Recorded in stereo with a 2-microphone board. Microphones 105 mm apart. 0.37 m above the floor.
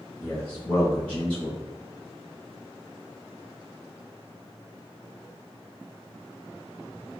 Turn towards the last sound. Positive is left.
turn(degrees=10)  # may be behind; listen again after turning